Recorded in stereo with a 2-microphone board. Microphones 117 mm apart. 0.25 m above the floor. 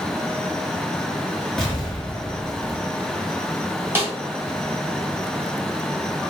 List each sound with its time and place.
1.6 s an explosion: centre (ahead or behind), 1.6 m
4.0 s a snare drum: 20° right (ahead or behind), 1.0 m